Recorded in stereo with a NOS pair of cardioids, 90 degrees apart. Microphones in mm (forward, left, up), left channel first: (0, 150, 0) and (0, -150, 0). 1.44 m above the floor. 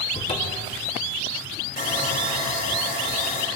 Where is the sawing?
30° left, 3.5 m.